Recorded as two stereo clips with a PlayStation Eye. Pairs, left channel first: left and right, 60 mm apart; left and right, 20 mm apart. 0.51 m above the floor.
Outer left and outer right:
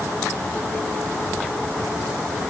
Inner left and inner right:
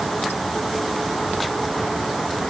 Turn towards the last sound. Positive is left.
No sound to turn to.